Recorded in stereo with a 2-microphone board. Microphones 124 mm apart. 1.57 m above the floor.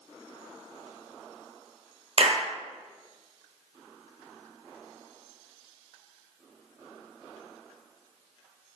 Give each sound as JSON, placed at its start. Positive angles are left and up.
{"t": 2.2, "sound": "a clap", "side_deg": -55, "distance_m": 0.6}